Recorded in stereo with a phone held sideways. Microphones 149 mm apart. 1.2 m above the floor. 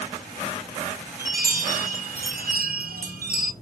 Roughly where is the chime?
Right.